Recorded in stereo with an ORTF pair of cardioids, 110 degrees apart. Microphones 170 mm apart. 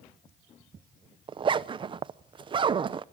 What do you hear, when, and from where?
1.3 s a zipper: 30° right, 0.5 m